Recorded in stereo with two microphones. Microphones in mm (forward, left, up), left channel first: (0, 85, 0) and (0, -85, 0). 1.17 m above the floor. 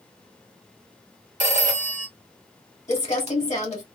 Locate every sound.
1.4 s a phone ringing: 45° right (ahead or behind), 1.2 m
2.9 s crumpling: 40° left (ahead or behind), 1.4 m